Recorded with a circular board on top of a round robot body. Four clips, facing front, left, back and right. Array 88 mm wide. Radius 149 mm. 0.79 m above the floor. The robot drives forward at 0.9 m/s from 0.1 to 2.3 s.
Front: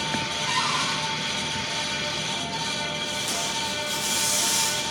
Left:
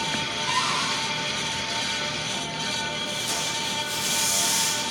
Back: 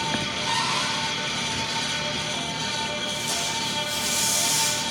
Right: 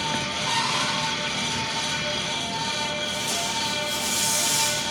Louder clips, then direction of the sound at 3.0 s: Right 2 dB, even; 5° left.